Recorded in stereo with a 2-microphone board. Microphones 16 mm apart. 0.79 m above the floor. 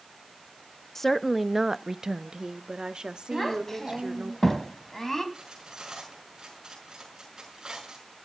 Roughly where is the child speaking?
Left.